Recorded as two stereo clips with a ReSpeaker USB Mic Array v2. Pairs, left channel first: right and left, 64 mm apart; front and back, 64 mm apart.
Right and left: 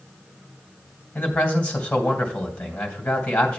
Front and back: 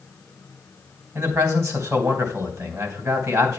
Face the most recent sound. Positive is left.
turn(degrees=-150)